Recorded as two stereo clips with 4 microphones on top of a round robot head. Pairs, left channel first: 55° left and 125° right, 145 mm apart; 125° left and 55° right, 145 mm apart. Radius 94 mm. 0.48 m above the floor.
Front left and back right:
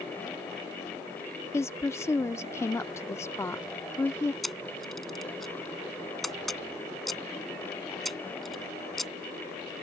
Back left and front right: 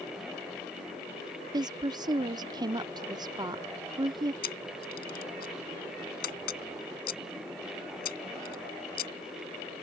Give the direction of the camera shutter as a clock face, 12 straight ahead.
7 o'clock.